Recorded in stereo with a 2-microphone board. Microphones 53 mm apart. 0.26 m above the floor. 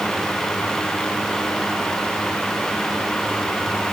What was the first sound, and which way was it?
Only background noise.